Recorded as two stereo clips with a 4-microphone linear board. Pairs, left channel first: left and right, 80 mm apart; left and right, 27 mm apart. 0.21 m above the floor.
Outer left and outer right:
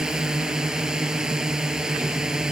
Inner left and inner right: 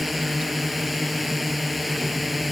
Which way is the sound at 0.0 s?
5° right (ahead or behind).